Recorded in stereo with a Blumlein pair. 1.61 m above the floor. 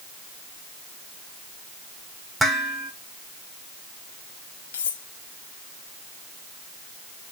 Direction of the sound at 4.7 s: 60° left.